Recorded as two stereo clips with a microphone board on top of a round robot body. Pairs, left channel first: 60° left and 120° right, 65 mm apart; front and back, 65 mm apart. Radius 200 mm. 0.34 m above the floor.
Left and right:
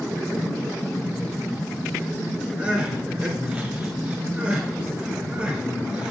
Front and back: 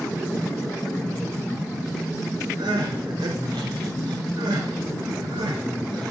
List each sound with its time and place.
2.6 s crying: 165° left, 1.2 m